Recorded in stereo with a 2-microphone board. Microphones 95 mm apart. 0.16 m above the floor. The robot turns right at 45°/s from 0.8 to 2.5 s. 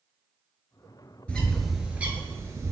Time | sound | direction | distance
1.3 | a bird | 15° left (ahead or behind) | 0.7 m